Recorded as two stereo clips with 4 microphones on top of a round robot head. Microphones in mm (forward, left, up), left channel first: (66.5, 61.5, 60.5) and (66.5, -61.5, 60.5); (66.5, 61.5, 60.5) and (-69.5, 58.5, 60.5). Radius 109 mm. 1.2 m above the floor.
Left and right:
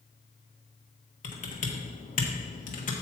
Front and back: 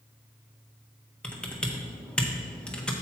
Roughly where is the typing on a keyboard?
Left.